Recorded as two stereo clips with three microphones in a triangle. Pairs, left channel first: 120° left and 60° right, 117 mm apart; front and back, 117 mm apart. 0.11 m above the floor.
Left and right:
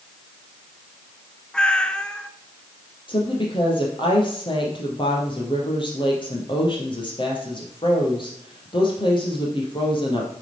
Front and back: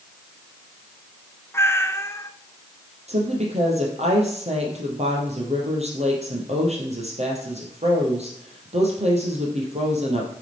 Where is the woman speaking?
165° left, 3 m.